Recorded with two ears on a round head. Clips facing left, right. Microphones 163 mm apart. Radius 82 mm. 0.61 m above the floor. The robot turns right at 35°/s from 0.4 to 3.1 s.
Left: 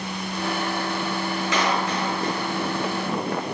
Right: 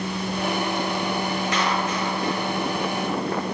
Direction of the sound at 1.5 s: 115° left.